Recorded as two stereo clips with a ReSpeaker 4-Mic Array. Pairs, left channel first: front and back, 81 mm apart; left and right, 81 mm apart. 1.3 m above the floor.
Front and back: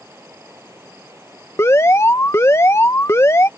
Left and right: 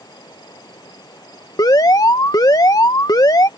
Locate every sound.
0.0 s running water: 125° left
1.6 s an alarm: 55° left